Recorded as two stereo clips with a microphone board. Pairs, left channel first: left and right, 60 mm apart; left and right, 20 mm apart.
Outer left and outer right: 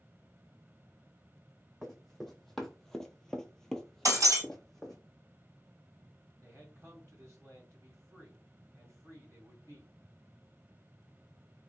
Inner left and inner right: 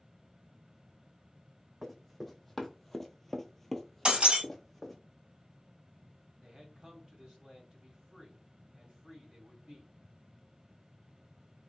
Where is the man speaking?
50° right (ahead or behind), 1.9 m.